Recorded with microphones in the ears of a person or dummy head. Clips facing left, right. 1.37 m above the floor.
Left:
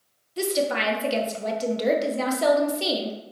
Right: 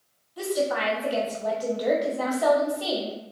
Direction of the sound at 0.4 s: 30° left (ahead or behind).